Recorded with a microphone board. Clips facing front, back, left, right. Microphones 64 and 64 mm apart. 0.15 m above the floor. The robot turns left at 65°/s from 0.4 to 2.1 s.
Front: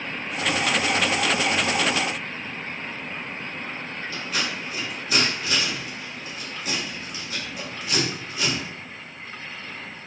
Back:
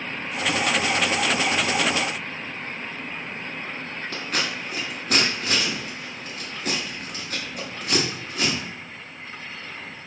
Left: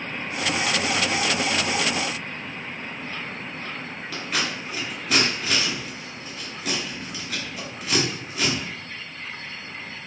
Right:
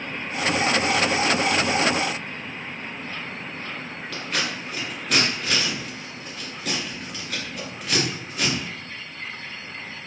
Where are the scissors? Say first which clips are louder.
Back 1 dB, even; 175° left, 1.1 m.